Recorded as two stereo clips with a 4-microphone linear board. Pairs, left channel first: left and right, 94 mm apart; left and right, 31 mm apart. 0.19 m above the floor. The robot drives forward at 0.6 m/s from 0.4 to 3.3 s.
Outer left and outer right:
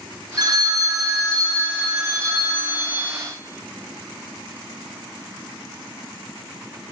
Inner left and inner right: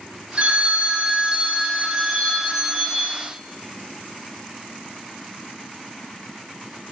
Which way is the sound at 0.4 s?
45° right (ahead or behind).